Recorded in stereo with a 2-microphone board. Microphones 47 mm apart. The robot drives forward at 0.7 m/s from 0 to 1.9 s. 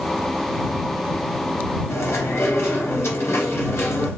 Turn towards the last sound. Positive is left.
turn(degrees=65)  # may be behind; listen again after turning